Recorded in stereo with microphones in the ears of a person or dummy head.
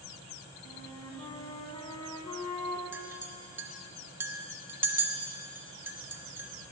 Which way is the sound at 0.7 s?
20° left (ahead or behind).